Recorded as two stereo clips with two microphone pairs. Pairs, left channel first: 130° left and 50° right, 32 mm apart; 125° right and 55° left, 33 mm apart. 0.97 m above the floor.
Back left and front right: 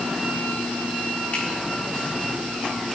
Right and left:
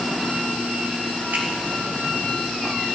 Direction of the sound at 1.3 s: 85° left.